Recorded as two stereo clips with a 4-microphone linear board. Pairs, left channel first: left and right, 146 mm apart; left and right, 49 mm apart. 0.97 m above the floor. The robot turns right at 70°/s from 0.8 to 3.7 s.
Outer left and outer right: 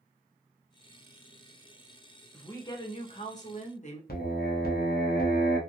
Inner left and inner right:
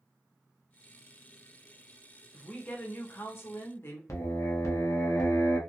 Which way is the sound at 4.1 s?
75° left (ahead or behind).